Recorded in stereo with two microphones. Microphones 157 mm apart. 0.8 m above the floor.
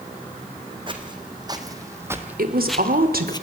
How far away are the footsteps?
About 2.5 m.